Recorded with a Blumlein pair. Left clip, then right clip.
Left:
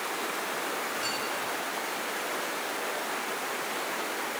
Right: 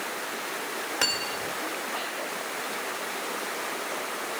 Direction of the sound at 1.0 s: 40° right.